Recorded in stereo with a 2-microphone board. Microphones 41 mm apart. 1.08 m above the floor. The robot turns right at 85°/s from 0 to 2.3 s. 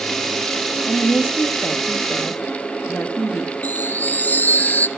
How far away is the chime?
About 0.6 m.